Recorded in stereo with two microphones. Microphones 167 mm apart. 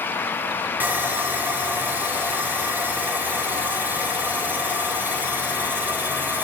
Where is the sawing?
10° right (ahead or behind), 1.1 m.